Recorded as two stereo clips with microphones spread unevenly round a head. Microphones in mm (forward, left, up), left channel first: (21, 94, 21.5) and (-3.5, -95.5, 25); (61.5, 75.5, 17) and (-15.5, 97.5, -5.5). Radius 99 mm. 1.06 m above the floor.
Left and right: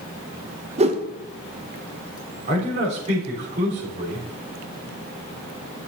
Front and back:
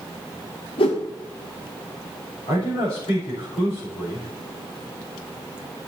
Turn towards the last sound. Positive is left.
turn(degrees=-40)